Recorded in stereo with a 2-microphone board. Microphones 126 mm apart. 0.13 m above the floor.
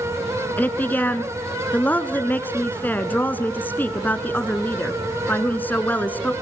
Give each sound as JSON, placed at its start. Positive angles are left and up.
{"t": 0.6, "sound": "a woman speaking", "side_deg": 15, "distance_m": 1.4}